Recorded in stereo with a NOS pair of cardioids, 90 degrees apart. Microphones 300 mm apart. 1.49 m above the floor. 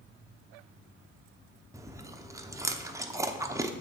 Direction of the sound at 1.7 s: 10° right.